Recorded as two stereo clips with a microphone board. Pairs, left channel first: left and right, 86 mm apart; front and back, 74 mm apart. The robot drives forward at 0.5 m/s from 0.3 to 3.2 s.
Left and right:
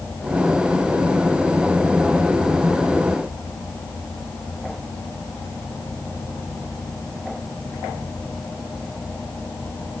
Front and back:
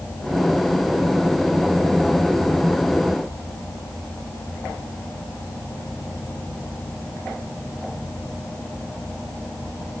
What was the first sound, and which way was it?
Only background noise.